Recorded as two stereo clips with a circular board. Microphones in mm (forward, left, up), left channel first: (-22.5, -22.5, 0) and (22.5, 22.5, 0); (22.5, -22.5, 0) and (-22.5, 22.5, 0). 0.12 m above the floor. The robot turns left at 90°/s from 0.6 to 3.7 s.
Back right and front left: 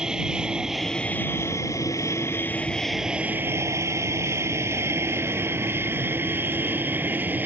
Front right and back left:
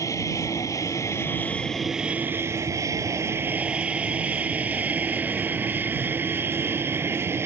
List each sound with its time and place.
0.0 s an aircraft: 35° right; by 7.5 s 100° left